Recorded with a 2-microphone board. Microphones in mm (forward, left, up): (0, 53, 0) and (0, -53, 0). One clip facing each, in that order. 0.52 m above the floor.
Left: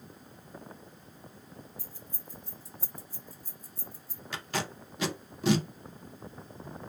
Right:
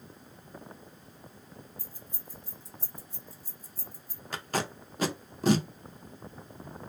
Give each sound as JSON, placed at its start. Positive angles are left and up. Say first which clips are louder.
{"t": 1.8, "sound": "keys jangling", "louder": "left 1 dB", "side_deg": -20, "distance_m": 1.1}
{"t": 4.3, "sound": "tape being pulled", "louder": "right 2 dB", "side_deg": -40, "distance_m": 0.5}